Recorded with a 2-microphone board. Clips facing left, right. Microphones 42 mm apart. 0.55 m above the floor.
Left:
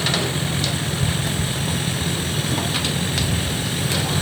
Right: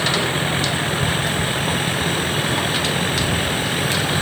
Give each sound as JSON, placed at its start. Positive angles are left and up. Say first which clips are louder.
{"t": 0.0, "sound": "a vehicle", "louder": "right 3 dB", "side_deg": -30}